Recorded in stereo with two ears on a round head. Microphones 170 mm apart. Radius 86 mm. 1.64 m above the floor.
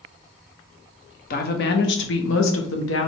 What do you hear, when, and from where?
1.3 s a woman speaking: 50° left (ahead or behind), 1.0 m; by 3.1 s 65° left (ahead or behind), 1.1 m